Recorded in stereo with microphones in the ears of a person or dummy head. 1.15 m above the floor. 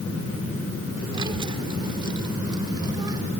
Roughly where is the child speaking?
Right.